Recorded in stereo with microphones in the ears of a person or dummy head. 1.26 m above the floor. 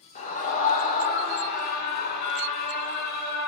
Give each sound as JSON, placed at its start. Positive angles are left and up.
{"t": 0.1, "sound": "a scream", "side_deg": 45, "distance_m": 4.5}